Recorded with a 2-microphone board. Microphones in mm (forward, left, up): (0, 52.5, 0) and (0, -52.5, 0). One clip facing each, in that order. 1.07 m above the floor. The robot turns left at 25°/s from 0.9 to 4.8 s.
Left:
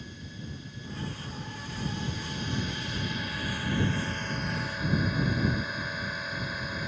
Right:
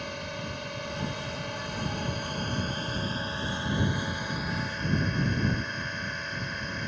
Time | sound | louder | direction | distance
0.0 | a drone | right 7 dB | 90° right | ?